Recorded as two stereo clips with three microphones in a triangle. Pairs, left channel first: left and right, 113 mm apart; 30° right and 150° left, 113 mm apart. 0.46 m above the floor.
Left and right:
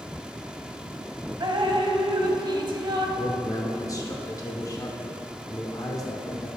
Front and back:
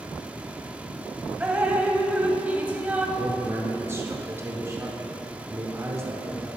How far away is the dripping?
About 0.5 m.